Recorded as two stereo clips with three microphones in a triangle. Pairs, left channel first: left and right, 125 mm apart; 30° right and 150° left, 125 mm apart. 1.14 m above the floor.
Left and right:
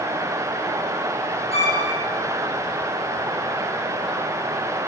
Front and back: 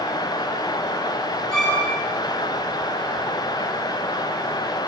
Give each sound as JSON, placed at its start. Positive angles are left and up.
{"t": 1.5, "sound": "a violin", "azimuth_deg": 55, "distance_m": 9.0}